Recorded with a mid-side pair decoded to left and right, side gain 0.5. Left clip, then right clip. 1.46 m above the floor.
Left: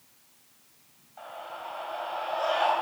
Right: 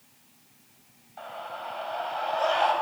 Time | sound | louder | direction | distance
1.2 | a scream | right 3 dB | 25° right | 10 m